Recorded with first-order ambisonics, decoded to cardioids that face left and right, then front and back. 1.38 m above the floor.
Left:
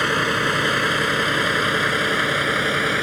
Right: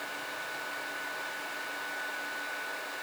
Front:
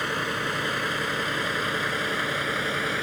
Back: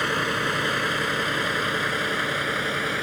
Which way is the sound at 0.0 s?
100° left.